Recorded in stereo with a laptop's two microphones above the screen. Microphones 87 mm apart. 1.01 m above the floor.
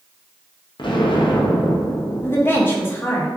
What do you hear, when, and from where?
0.8 s an explosion: 55° left (ahead or behind), 0.5 m
2.2 s a woman speaking: 25° left (ahead or behind), 0.7 m